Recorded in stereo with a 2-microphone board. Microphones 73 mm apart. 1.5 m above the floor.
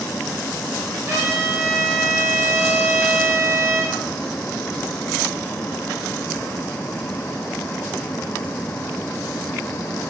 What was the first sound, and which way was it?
A trumpet, 40° right (ahead or behind).